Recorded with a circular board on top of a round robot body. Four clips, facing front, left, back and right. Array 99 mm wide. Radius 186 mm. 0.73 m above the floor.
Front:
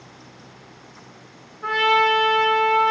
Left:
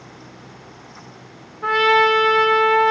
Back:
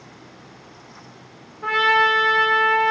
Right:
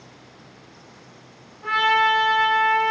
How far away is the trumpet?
About 3 m.